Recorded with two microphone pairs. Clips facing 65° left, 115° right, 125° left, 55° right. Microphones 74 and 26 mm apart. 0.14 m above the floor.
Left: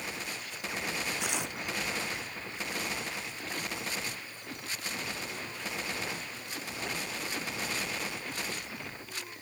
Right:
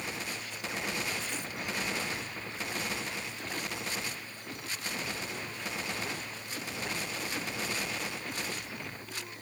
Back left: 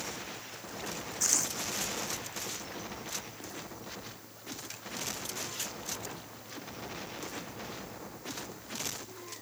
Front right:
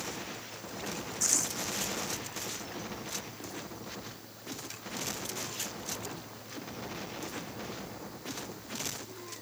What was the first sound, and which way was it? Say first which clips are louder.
Tearing paper: left 3 dB, even; 45° left.